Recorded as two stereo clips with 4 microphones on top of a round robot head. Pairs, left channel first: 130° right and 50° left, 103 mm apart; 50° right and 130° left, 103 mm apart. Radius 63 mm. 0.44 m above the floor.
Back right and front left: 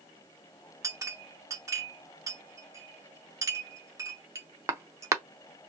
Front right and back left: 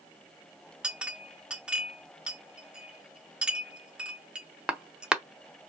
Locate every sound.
0.8 s a clink: 55° left, 0.6 m